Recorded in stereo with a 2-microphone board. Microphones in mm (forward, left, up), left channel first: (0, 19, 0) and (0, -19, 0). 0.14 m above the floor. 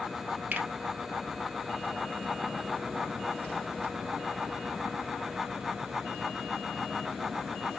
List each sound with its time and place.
0.5 s a finger snap: 45° right (ahead or behind), 2.0 m